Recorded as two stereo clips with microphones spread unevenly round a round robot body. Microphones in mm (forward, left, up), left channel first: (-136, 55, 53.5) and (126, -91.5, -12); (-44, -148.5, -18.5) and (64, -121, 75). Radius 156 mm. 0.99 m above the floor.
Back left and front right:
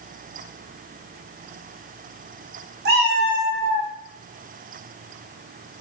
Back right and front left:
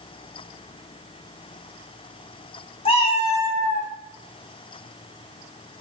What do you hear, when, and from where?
2.9 s a cat meowing: 65° right, 0.5 m; by 3.9 s 105° right, 0.8 m